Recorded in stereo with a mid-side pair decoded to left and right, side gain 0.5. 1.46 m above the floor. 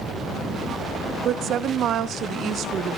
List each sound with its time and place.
1.2 s a woman speaking: 65° right, 0.6 m